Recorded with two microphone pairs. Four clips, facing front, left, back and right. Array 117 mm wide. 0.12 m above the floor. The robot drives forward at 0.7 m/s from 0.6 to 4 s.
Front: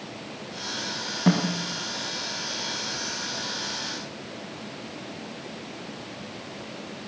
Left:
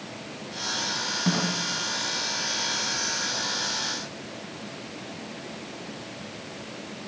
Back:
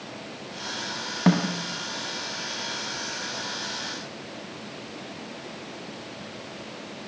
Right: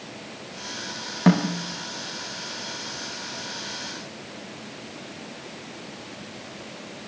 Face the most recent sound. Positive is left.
turn(degrees=-150)